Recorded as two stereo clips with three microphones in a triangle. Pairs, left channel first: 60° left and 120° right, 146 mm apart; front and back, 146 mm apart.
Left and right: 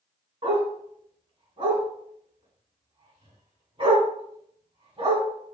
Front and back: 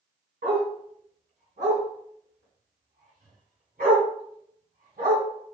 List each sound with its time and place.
0.4 s a dog barking: 175° right, 2.5 m